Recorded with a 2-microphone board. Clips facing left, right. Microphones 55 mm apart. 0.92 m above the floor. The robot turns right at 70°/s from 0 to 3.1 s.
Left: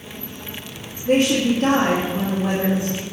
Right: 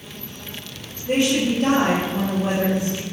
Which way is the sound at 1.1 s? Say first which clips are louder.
Left 2 dB; 135° left.